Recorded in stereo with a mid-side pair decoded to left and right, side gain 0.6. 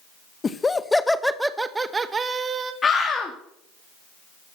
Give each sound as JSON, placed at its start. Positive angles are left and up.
{"t": 0.4, "sound": "laughter", "azimuth_deg": 30, "distance_m": 1.2}
{"t": 2.8, "sound": "a scream", "azimuth_deg": 30, "distance_m": 2.5}